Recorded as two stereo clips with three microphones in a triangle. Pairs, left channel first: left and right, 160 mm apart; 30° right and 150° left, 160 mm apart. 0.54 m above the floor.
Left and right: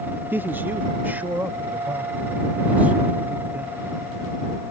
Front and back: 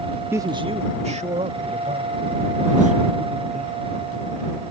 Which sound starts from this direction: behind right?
A man speaking, at 0.3 s.